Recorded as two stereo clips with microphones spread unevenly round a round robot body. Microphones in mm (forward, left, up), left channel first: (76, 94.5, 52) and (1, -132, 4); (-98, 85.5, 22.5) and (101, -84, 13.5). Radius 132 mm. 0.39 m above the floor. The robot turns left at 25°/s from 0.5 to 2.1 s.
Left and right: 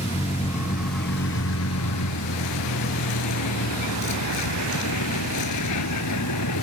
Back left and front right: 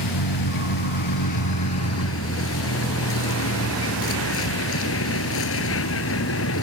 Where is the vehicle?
140° left; by 6.7 s 100° left.